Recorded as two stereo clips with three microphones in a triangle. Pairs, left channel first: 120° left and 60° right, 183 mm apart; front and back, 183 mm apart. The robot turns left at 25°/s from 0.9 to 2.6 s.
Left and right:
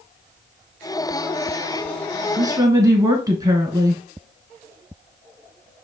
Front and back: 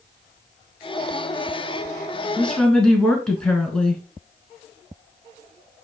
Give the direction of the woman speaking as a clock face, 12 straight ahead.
2 o'clock.